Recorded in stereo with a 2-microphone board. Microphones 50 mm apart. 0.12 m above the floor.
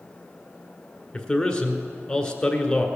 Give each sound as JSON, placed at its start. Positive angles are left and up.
{"t": 1.1, "sound": "a man speaking", "side_deg": 15, "distance_m": 1.6}